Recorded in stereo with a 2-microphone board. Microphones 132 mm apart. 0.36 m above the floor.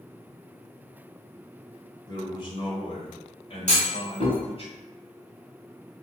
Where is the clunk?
55° left (ahead or behind), 1.6 m.